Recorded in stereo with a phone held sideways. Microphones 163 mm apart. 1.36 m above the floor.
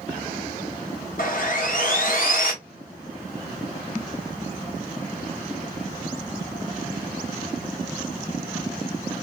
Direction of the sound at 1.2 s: 60° left (ahead or behind).